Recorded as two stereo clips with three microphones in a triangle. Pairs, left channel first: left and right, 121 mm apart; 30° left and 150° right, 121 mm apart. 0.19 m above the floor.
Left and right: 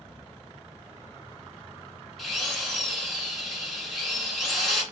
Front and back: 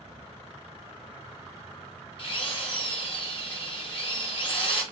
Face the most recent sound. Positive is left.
turn(degrees=0)